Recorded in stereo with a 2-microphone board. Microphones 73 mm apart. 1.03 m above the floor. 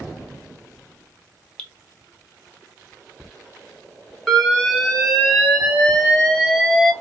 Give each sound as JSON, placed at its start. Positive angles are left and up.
{"t": 1.6, "sound": "dripping", "side_deg": 20, "distance_m": 0.6}
{"t": 4.3, "sound": "an alarm", "side_deg": 0, "distance_m": 1.0}